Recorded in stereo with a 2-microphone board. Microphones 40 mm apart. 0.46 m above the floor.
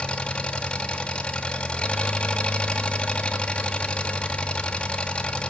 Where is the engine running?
25° left (ahead or behind), 2 m.